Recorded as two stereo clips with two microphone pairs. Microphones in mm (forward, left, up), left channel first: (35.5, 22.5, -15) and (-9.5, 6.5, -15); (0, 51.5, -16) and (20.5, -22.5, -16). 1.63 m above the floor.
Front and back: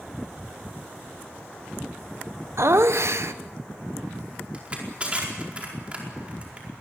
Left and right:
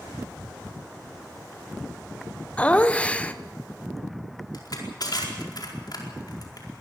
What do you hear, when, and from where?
2.6 s laughter: straight behind, 1.1 m
4.5 s crushing: 135° left, 4.5 m